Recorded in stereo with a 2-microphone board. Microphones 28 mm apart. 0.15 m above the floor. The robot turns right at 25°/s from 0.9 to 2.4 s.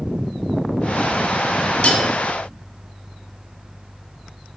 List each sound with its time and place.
1.8 s cutlery clinking: 45° left (ahead or behind), 0.9 m